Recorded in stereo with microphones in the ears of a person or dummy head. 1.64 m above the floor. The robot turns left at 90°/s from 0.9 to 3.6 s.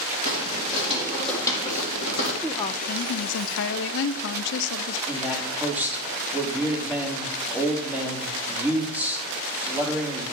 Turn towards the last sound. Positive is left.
turn(degrees=-10)  # may be behind; listen again after turning